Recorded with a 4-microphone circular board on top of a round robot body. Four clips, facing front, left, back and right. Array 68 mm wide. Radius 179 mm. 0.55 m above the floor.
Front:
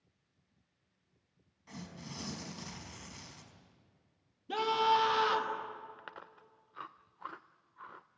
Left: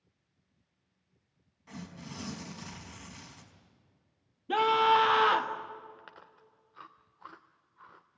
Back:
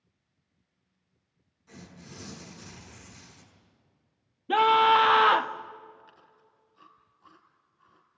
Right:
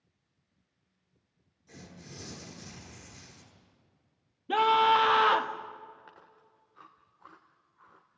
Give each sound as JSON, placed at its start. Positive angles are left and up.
{"t": 1.7, "sound": "tearing paper", "azimuth_deg": 60, "distance_m": 4.5}
{"t": 4.5, "sound": "a scream", "azimuth_deg": -175, "distance_m": 1.6}
{"t": 6.0, "sound": "chewing", "azimuth_deg": 15, "distance_m": 0.5}